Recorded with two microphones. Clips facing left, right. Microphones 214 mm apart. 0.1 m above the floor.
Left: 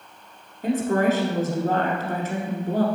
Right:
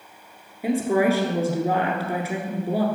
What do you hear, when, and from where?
0.6 s a woman speaking: 10° right (ahead or behind), 1.6 m